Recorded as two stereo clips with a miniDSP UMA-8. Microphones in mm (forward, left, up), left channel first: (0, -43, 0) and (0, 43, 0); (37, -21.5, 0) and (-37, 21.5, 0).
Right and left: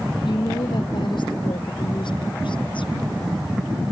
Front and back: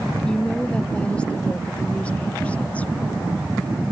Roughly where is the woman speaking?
Right.